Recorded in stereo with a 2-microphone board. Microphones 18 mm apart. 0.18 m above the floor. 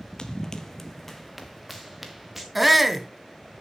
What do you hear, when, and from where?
0.2 s running footsteps: 50° left (ahead or behind), 0.8 m; by 2.5 s 10° right (ahead or behind), 1.8 m
2.5 s a shout: 5° right (ahead or behind), 1.1 m